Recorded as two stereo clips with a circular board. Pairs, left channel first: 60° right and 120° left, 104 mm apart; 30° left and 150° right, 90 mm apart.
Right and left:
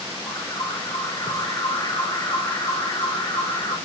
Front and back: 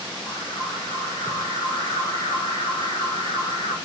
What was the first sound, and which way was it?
An alarm, 20° right.